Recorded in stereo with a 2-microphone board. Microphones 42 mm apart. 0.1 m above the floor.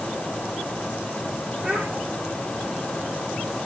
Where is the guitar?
No guitar in this recording.